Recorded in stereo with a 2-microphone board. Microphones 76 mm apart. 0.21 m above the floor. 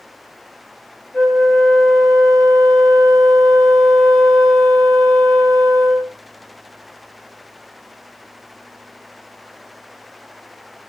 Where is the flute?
25° left (ahead or behind), 1.4 m.